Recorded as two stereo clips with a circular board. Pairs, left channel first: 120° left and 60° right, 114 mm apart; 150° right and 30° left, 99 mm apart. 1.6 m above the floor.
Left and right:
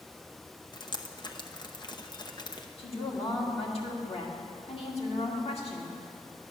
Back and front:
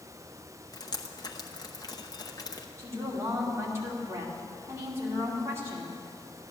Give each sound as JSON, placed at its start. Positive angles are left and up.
{"t": 0.7, "sound": "dripping", "azimuth_deg": 165, "distance_m": 0.9}
{"t": 2.8, "sound": "a woman speaking", "azimuth_deg": 90, "distance_m": 2.5}